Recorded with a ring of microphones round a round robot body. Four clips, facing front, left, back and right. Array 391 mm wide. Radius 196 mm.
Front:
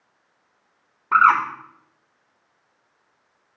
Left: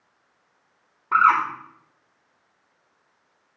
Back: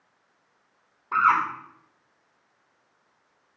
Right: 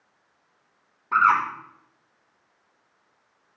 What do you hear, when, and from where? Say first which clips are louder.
1.1 s a bird: left 2 dB, front 5 dB; 25° left, 1.5 m